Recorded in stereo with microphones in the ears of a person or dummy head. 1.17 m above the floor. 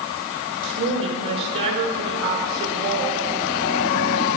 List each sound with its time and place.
0.6 s a woman speaking: 70° right (ahead or behind), 1.7 m